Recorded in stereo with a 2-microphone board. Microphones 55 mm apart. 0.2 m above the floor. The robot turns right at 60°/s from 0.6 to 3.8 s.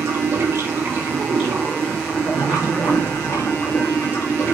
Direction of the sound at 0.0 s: 50° right.